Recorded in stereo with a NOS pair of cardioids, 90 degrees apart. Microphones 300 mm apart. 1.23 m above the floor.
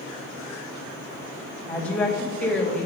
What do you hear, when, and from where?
1.7 s a woman speaking: 5° left, 2.5 m